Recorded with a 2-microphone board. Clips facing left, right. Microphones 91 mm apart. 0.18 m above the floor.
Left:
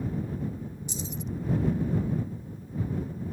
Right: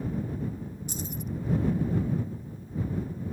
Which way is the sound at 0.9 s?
50° right (ahead or behind).